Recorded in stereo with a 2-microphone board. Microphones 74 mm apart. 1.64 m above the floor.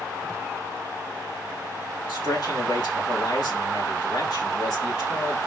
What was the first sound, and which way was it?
A man speaking, 65° left (ahead or behind).